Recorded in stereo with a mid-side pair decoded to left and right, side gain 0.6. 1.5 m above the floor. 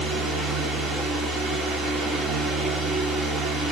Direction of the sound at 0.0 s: 40° right.